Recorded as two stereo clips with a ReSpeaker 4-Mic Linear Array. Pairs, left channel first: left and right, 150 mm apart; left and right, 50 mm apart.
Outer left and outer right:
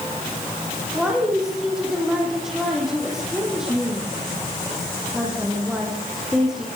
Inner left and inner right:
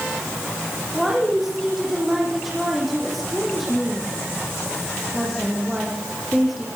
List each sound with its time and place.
0.9 s a woman speaking: 5° right (ahead or behind), 9 m